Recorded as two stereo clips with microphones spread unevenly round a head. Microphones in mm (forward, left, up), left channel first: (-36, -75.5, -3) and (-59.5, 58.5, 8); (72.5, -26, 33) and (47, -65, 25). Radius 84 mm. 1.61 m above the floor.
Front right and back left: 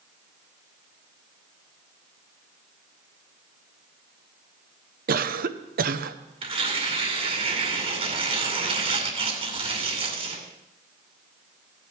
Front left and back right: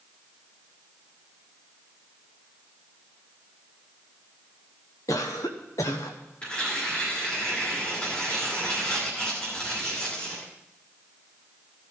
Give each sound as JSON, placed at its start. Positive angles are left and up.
{"t": 5.1, "sound": "a cough", "azimuth_deg": 100, "distance_m": 0.8}
{"t": 6.4, "sound": "tearing paper", "azimuth_deg": 115, "distance_m": 2.0}